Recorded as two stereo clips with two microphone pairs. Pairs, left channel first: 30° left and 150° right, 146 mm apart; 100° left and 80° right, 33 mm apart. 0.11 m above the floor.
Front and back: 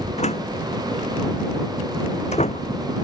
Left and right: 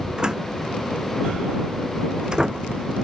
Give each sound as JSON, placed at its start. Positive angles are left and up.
{"t": 0.2, "sound": "a door slam", "azimuth_deg": -10}